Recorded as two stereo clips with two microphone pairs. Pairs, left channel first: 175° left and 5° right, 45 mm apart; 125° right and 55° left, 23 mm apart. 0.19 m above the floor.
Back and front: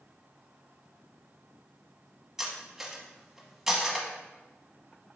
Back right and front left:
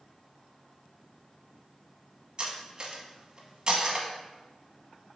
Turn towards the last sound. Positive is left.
turn(degrees=65)